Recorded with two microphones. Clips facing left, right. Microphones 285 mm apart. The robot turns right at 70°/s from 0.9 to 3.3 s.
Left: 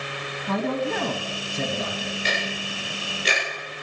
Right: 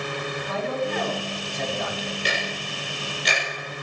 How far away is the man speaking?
About 2 m.